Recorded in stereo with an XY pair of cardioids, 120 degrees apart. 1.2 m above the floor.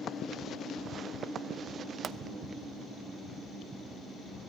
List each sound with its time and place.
2.0 s a pop: 45° right, 0.7 m